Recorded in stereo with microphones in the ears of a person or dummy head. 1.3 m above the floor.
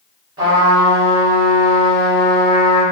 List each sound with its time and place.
0.4 s a trumpet: 25° right (ahead or behind), 1.3 m